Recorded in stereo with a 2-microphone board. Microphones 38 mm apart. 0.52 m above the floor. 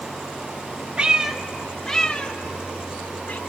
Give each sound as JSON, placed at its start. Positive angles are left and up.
{"t": 1.0, "sound": "a cat meowing", "side_deg": -30, "distance_m": 0.8}